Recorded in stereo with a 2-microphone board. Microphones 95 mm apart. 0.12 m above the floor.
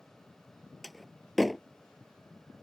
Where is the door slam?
Centre (ahead or behind).